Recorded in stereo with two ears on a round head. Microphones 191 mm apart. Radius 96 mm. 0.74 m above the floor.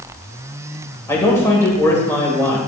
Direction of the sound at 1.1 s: 10° left (ahead or behind).